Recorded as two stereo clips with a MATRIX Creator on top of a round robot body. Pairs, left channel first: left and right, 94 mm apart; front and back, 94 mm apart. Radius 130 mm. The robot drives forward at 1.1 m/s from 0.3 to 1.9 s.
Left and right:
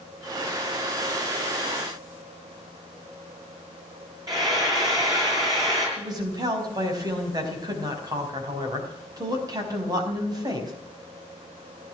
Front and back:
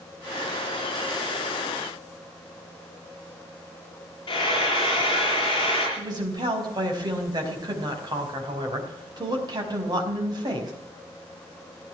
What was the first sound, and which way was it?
Frying, 40° right.